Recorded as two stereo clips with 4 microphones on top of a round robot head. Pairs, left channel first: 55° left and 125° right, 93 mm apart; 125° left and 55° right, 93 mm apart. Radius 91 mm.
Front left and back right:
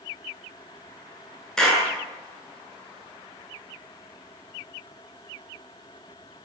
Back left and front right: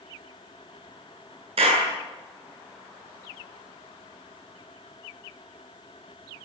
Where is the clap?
30° right, 8.5 m.